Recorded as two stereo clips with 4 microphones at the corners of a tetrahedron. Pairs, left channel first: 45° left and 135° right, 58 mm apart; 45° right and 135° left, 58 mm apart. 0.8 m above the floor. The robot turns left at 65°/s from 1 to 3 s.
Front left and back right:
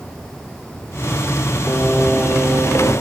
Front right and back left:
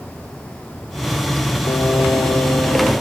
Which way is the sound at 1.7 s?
25° right.